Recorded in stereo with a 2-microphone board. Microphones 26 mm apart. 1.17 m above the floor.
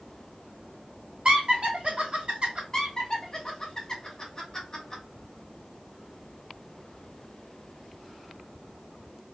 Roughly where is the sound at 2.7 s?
Left.